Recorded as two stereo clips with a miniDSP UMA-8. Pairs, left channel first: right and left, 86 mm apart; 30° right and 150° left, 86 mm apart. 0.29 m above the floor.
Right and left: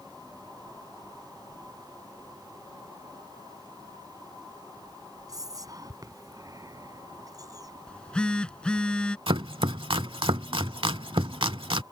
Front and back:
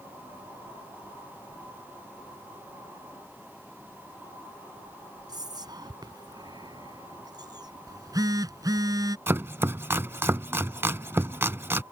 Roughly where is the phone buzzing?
Behind.